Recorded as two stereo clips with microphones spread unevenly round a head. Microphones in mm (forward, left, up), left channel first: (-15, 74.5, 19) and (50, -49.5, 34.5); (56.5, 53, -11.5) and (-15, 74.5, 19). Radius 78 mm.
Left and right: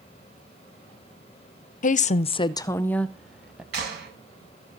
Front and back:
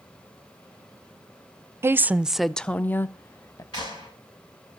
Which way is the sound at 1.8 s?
100° left.